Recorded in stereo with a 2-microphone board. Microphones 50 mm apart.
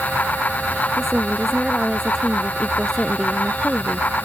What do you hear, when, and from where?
1.0 s a woman speaking: 5° left (ahead or behind)